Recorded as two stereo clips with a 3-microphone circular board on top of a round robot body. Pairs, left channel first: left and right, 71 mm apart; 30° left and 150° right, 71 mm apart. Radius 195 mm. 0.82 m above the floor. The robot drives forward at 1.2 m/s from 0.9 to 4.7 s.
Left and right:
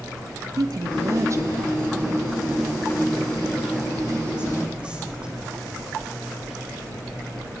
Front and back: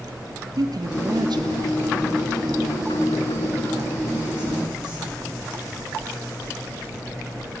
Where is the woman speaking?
125° right, 1.7 m; by 5.3 s 165° right, 5.5 m.